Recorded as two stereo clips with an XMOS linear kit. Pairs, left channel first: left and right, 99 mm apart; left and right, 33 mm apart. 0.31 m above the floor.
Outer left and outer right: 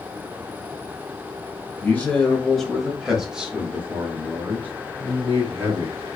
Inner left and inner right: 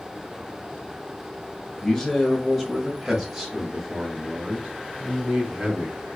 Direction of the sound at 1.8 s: 15° left (ahead or behind).